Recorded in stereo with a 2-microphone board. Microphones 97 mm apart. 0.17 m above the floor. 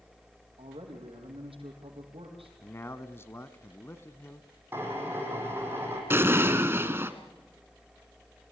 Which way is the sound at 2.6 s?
25° left (ahead or behind).